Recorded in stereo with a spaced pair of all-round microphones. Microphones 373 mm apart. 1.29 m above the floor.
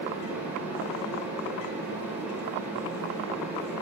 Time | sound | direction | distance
0.0 | a fan | 5° right (ahead or behind) | 4.5 m